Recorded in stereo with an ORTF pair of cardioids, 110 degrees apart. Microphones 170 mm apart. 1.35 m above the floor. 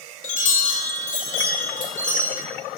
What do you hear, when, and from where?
0.2 s a chime: 45° left, 2 m